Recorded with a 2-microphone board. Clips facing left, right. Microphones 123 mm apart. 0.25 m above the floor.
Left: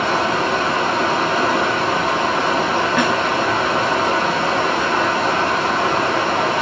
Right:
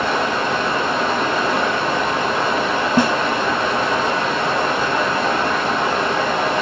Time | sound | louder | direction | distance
0.0 | running water | left 1 dB | 80° left | 3 m
3.0 | a snare drum | right 4 dB | 30° right (ahead or behind) | 0.7 m